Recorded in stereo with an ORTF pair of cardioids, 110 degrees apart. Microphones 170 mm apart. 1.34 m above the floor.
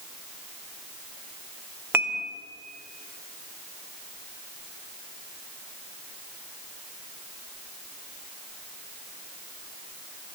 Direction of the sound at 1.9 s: 10° right.